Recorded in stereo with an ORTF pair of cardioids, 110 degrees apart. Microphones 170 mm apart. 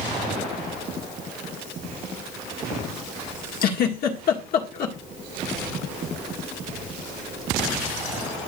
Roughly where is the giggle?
Ahead left.